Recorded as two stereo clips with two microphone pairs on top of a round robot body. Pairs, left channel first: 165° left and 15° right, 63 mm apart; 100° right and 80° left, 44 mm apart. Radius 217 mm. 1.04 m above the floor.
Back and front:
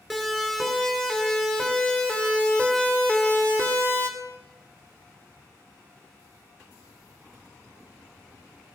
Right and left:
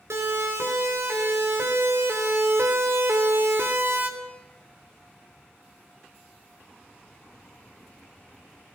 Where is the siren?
75° left, 5 m; by 4.1 s 105° left, 3 m.